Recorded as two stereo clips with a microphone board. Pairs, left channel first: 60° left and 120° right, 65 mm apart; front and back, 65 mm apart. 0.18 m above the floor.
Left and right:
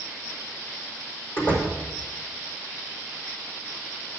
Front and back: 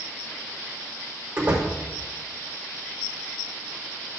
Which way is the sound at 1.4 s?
110° left.